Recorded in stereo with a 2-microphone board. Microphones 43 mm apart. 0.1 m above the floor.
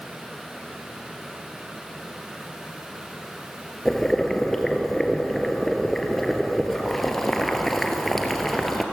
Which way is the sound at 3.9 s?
5° left (ahead or behind).